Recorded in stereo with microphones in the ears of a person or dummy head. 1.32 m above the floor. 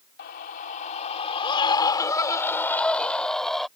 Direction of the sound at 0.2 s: 50° left (ahead or behind).